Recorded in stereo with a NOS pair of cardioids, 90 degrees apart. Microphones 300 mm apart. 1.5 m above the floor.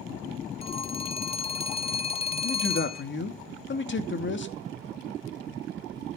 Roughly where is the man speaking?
Ahead left.